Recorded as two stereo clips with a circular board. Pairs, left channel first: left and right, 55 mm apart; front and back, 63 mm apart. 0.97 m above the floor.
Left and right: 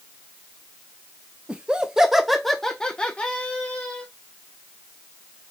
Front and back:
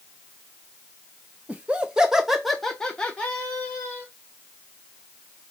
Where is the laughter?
140° right, 0.9 m; by 4.1 s 50° left, 1.2 m.